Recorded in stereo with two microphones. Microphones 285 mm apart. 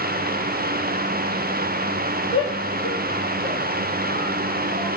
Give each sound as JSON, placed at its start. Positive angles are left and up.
{"t": 2.3, "sound": "a shout", "side_deg": 15, "distance_m": 5.0}